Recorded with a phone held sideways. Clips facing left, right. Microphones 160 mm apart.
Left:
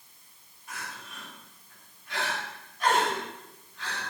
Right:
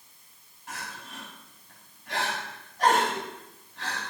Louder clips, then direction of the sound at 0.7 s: Right 2 dB; 85° right.